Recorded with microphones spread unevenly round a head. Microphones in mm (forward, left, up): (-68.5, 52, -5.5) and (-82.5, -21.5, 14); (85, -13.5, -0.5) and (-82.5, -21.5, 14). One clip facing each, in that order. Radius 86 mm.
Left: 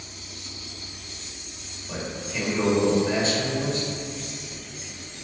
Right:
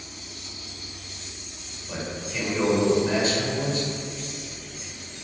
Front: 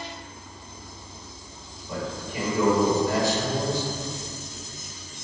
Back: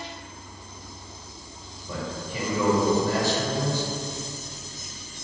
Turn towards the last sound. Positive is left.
turn(degrees=180)